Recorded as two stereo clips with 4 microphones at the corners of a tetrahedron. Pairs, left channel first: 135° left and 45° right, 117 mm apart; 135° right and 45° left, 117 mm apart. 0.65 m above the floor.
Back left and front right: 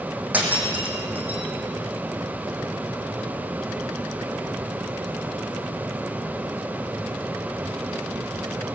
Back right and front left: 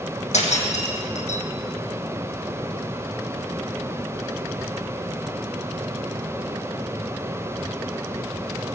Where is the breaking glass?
120° right, 4 m.